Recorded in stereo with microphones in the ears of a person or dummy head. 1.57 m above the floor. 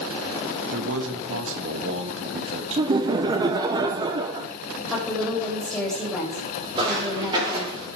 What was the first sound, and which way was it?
A man speaking, 85° right.